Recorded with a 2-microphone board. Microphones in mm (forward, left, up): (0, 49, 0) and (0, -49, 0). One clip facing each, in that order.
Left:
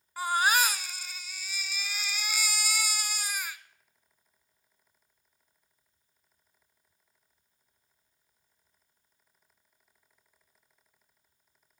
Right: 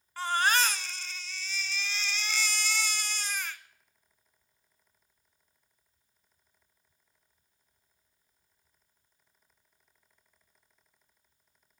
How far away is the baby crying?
About 0.5 m.